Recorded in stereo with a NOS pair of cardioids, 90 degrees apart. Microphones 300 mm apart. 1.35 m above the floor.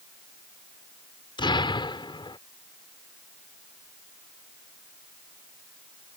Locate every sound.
1.4 s an explosion: 15° left